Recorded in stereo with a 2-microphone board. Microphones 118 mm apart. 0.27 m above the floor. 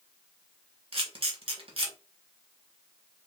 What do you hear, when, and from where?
0.9 s a camera shutter: 50° right (ahead or behind), 1.0 m